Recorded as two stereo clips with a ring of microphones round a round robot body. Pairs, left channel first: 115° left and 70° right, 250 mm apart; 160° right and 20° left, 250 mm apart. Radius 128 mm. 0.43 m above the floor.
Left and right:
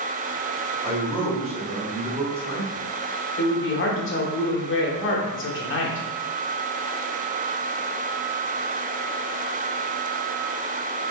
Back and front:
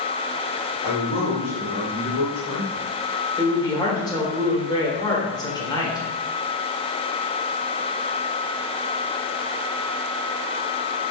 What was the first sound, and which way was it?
A man speaking, 125° right.